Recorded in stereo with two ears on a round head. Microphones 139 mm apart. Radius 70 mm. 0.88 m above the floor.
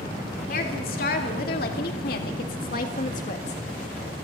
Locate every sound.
0.5 s a woman speaking: 60° left (ahead or behind), 3 m; by 3.6 s 45° left (ahead or behind), 1.6 m